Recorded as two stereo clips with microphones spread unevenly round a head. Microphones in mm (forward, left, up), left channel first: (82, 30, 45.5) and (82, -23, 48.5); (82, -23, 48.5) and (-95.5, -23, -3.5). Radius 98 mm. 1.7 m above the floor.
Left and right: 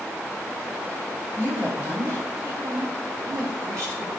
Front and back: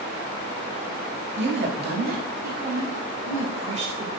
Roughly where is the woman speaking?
Behind.